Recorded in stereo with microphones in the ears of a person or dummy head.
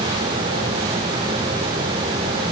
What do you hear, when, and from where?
Only background noise.